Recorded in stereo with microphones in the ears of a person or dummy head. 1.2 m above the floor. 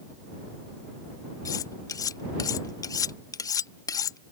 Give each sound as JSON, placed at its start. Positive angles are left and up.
{"t": 1.4, "sound": "cutlery clinking", "side_deg": 15}